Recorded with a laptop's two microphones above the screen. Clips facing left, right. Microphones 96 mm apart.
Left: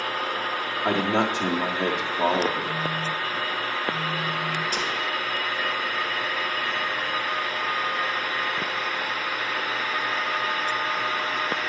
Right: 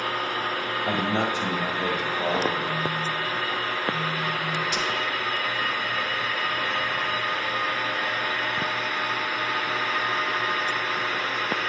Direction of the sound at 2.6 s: 30° left (ahead or behind).